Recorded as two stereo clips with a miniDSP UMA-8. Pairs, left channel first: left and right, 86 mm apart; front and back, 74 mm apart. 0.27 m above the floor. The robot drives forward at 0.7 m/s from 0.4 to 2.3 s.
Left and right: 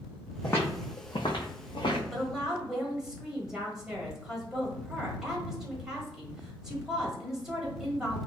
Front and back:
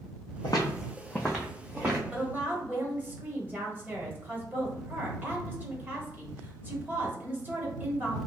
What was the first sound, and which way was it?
Footsteps, 20° left.